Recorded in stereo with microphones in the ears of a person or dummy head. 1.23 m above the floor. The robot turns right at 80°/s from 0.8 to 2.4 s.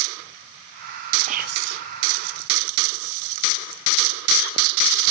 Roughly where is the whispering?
Behind right.